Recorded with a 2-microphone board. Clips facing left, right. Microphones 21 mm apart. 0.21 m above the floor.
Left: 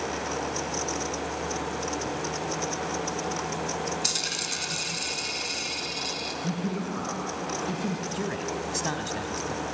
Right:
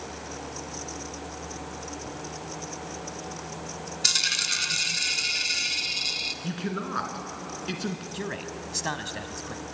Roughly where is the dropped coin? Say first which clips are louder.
Right 9 dB; right.